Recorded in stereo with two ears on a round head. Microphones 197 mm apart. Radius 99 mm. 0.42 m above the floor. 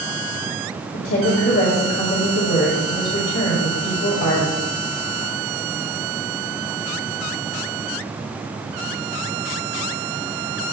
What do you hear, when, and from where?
0.9 s a woman speaking: 55° left (ahead or behind), 2 m